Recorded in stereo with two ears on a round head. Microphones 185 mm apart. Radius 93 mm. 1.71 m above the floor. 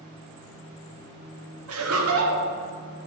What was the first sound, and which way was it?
Laughter, 75° right (ahead or behind).